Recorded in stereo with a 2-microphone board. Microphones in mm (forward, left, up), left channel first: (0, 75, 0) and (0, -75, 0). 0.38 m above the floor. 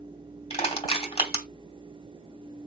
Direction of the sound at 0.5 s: 40° left (ahead or behind).